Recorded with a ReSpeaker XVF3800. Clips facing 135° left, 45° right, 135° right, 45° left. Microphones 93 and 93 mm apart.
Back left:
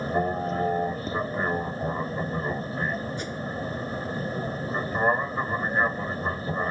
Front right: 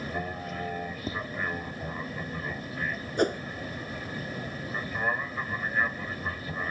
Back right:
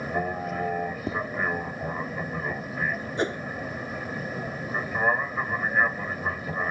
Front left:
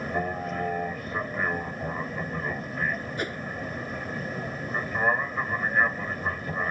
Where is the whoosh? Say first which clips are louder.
Front right 7 dB, back right 5 dB; 70° right.